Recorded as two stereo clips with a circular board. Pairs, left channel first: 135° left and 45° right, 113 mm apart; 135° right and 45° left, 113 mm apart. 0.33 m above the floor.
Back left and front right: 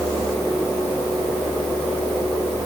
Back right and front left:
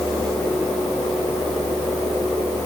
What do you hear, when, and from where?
Only background noise.